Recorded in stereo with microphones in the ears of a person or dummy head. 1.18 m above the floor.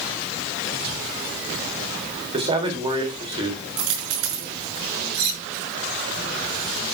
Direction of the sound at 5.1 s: 55° right (ahead or behind).